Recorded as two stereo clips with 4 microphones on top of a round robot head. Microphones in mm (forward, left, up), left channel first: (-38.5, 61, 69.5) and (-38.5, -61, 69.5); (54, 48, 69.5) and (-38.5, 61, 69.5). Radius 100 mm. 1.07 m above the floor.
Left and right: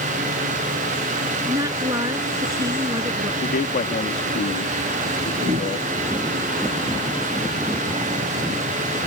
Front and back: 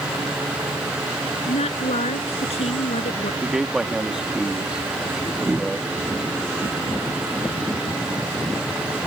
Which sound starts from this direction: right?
A whoosh, at 5.4 s.